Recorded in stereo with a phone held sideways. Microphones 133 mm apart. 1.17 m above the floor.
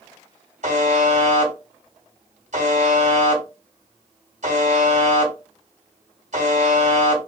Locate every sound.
0.6 s a buzzer: 65° right (ahead or behind), 1.9 m